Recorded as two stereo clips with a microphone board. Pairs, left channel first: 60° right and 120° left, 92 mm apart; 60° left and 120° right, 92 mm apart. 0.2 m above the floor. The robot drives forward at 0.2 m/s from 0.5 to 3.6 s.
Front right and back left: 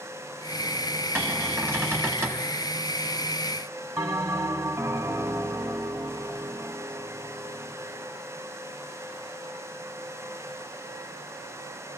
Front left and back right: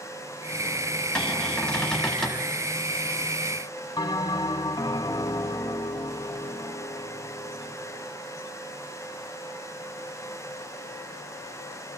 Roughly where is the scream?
I don't hear a scream.